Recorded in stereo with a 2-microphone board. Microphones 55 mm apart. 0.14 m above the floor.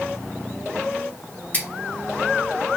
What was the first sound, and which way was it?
Scissors, 30° left (ahead or behind).